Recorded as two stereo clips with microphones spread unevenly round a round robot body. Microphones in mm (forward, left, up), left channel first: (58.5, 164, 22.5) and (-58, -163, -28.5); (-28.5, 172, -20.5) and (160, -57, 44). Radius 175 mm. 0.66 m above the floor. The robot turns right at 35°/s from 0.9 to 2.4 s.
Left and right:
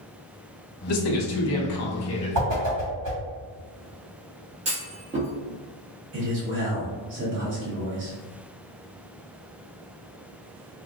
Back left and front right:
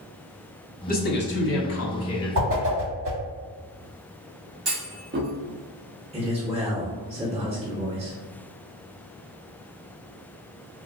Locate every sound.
0.9 s a man speaking: 80° left, 1.0 m; by 2.7 s 135° left, 1.0 m
2.4 s a whoosh: 105° right, 1.6 m
4.7 s a clunk: 95° right, 0.9 m
6.1 s a man speaking: 125° right, 1.0 m